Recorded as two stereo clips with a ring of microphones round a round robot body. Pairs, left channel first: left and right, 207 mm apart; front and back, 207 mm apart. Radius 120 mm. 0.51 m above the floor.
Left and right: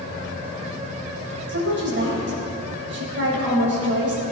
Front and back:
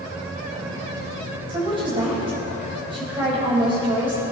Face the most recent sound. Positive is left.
turn(degrees=-110)